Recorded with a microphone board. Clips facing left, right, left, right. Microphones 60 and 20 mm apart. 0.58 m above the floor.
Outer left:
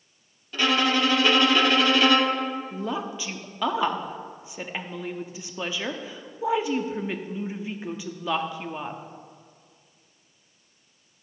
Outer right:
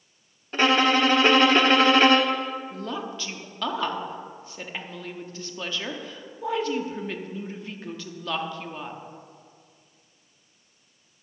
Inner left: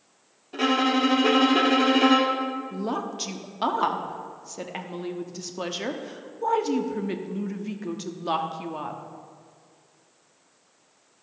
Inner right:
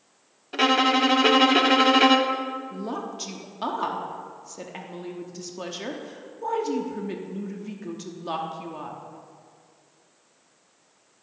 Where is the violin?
40° right (ahead or behind), 0.8 m.